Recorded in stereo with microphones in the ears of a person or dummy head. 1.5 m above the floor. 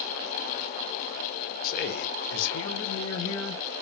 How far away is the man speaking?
About 1.0 m.